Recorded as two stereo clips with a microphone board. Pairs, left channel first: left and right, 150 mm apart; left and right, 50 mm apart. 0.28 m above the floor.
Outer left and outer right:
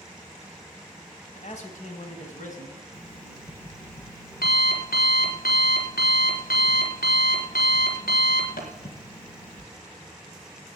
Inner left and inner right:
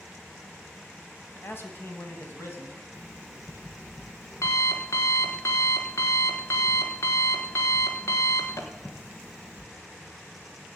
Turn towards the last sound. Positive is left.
turn(degrees=80)